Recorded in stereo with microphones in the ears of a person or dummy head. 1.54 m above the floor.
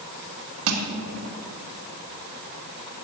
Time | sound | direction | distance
0.7 | crushing | 65° right (ahead or behind) | 1.7 m